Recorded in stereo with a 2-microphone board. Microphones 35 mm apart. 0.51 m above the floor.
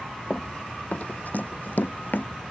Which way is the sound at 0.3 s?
30° left (ahead or behind).